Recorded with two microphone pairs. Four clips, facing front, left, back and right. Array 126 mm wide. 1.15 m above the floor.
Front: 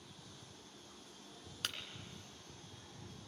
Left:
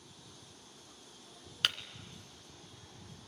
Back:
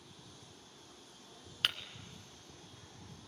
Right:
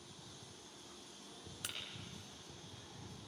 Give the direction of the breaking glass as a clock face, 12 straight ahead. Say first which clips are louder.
Left 15 dB, back 7 dB; 8 o'clock.